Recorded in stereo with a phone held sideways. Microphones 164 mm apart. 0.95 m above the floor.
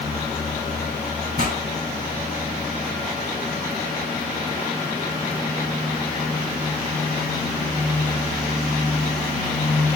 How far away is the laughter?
No laughter in this recording.